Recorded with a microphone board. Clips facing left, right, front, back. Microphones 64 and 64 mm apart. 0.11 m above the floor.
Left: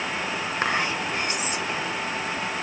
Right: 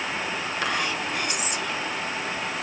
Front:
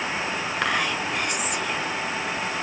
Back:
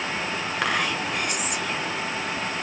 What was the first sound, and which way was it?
Whispering, 90° left.